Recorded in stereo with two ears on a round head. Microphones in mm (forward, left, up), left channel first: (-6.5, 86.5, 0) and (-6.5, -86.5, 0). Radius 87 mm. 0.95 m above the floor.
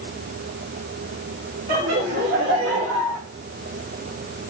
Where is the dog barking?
No dog barking in this recording.